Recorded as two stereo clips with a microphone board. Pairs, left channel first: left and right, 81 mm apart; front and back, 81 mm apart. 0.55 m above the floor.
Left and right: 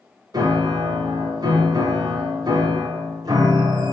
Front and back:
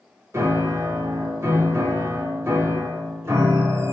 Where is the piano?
125° right, 0.7 m.